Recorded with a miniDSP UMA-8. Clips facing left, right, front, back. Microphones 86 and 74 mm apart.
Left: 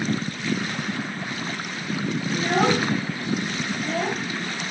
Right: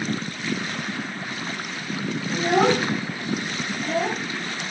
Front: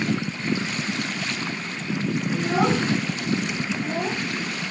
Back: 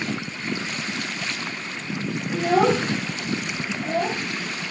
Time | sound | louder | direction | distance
2.3 | a child speaking | right 2 dB, back 4 dB | 160° right | 4.5 m